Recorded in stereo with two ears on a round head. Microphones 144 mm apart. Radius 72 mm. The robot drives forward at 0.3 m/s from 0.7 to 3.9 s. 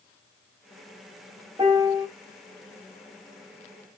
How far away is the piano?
About 1.6 m.